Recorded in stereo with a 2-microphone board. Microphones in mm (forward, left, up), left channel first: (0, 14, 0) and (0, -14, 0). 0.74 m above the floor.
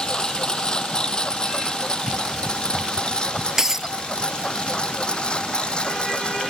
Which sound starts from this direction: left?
A lawn mower, at 0.0 s.